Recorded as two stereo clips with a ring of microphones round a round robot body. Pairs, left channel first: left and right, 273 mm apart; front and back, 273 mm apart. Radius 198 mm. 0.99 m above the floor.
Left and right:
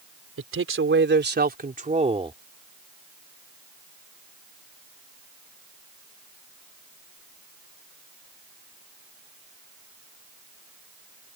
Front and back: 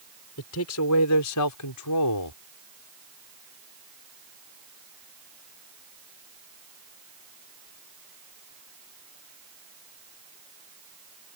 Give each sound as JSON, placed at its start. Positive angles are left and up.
{"t": 0.4, "sound": "a man speaking", "azimuth_deg": -50}